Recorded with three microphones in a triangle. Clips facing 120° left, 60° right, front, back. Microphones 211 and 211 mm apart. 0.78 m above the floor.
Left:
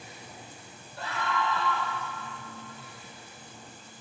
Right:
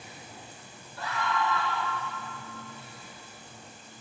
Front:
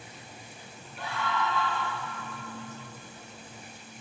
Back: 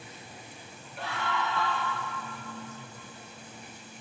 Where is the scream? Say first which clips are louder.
Right 1 dB, front 1 dB; 165° left, 1.1 m.